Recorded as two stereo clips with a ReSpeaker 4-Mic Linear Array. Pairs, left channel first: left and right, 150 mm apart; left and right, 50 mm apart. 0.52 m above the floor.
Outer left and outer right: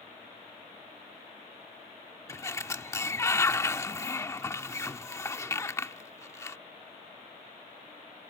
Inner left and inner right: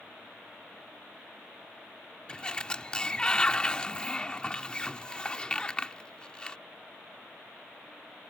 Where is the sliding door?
20° left (ahead or behind).